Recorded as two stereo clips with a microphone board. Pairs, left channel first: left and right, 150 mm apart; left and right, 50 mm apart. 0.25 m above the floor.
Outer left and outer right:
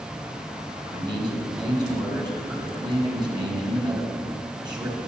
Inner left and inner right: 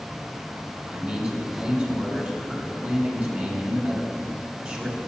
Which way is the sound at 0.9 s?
30° right (ahead or behind).